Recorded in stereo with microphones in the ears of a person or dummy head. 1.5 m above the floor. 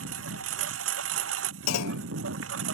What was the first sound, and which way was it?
A lawn mower, 85° right.